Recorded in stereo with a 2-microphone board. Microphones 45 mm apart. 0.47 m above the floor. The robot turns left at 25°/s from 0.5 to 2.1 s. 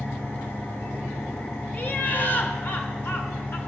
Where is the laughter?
40° left (ahead or behind), 1.3 m; by 3.6 s 45° left (ahead or behind), 1.3 m.